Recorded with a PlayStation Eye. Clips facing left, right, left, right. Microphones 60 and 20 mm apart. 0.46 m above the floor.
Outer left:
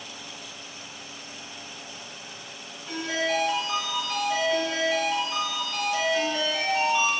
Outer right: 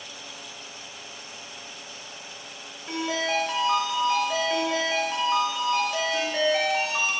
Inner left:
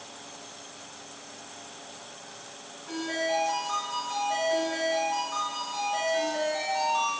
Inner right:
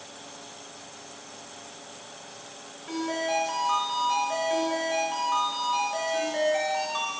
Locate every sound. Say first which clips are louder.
2.9 s a ringtone: even, inner right 1 dB; 35° right (ahead or behind), 1.0 m